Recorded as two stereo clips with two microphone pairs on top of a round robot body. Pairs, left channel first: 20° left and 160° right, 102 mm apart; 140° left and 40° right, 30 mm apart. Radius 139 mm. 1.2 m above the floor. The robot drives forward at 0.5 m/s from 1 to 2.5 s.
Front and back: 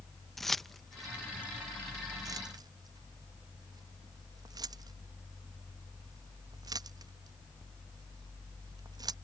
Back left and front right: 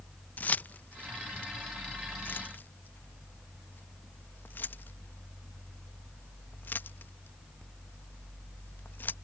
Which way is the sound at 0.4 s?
110° left.